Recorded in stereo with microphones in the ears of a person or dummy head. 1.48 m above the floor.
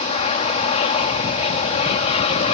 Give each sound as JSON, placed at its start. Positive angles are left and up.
{"t": 0.0, "sound": "an aircraft", "side_deg": 35}